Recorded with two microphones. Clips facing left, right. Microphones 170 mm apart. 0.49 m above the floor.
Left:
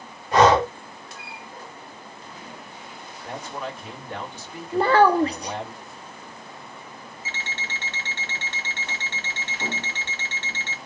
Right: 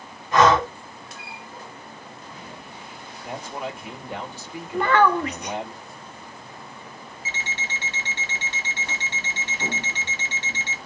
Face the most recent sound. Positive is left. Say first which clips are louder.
# right 2 dB
turn(degrees=-15)  # may be behind; listen again after turning